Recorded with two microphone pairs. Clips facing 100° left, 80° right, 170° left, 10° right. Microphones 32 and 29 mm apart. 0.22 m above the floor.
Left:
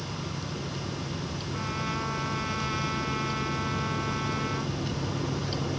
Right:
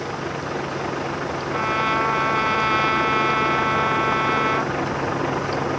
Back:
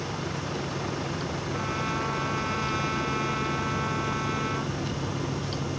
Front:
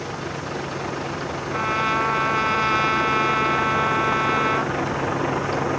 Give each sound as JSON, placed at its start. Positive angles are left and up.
{"t": 0.0, "sound": "a vehicle", "azimuth_deg": -80}
{"t": 1.5, "sound": "a trumpet", "azimuth_deg": -55}